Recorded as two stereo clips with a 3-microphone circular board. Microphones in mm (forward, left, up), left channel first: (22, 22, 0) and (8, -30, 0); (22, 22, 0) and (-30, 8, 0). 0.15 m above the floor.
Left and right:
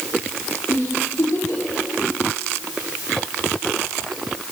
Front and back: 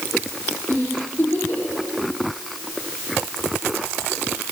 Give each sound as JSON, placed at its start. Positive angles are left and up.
{"t": 0.7, "sound": "a giggle", "azimuth_deg": 60, "distance_m": 7.0}